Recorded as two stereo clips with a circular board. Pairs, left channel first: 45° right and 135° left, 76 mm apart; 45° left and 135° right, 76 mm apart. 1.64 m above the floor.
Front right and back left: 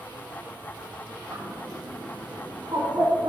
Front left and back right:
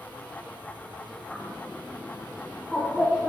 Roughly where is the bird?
Behind left.